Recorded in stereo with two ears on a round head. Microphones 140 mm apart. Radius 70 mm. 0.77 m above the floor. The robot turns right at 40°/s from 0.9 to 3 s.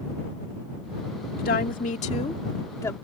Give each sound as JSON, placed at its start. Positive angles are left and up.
{"t": 1.4, "sound": "a woman speaking", "azimuth_deg": 100}